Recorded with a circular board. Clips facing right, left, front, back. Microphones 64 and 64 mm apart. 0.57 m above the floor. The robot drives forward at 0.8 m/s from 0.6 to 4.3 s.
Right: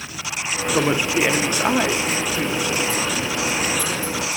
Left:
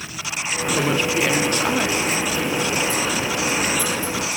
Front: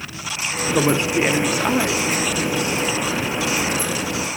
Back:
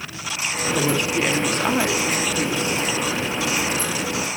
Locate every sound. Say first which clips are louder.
0.7 s a woman speaking: right 1 dB, front 4 dB; 25° right, 1.5 m; by 2.9 s 160° right, 1.5 m